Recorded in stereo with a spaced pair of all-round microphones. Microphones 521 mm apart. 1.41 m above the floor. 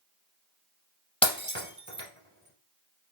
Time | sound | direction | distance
1.2 | breaking glass | 10° left (ahead or behind) | 1.8 m